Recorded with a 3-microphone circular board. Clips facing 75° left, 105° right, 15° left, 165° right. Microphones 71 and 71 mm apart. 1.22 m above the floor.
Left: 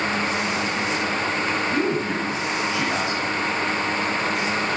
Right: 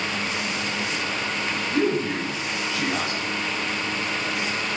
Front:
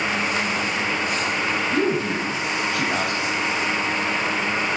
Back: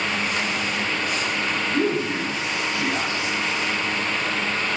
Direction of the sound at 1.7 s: 10° left.